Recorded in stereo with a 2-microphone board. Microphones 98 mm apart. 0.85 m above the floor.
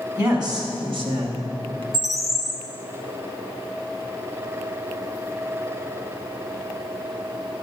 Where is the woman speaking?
40° right (ahead or behind), 1.5 m; by 1.8 s 70° right (ahead or behind), 0.9 m.